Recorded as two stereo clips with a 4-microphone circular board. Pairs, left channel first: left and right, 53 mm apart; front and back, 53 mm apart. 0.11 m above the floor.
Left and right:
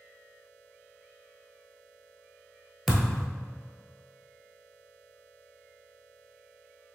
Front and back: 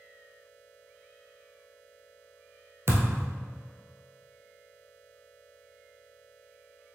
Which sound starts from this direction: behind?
A thud, at 2.9 s.